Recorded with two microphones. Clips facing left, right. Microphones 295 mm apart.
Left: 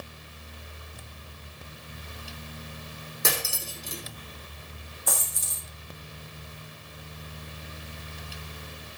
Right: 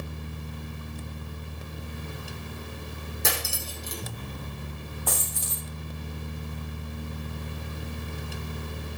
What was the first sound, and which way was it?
Cutlery clinking, centre (ahead or behind).